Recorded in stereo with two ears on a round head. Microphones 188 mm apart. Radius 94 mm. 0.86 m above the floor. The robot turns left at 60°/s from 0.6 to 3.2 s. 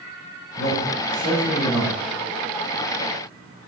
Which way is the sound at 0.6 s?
75° left.